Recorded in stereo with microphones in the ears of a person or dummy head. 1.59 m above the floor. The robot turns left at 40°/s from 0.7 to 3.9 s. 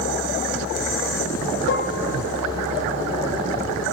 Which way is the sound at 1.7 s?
55° left (ahead or behind).